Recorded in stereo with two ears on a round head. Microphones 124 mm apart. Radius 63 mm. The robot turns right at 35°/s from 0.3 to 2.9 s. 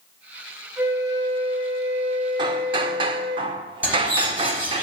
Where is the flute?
165° right, 1.8 m; by 3.4 s 90° right, 1.8 m.